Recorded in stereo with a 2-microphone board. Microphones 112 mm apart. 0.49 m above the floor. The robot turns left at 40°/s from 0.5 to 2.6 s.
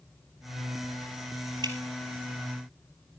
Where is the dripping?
40° right (ahead or behind), 1.9 m; by 1.8 s 35° right (ahead or behind), 1.9 m.